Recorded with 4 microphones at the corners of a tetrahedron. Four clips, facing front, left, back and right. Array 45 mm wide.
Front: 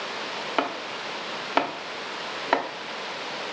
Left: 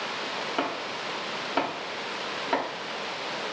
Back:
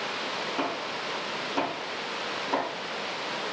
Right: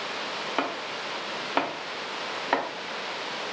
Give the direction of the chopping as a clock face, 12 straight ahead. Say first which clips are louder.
Right 2 dB, front 2 dB; 1 o'clock.